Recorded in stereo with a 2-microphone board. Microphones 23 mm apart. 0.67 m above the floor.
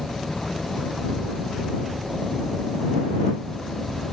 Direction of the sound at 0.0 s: 70° left (ahead or behind).